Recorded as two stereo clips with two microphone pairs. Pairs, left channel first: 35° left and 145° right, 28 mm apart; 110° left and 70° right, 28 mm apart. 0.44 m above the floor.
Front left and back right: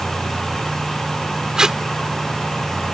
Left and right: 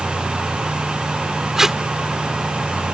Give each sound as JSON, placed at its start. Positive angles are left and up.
{"t": 1.6, "sound": "tape being pulled", "azimuth_deg": -120}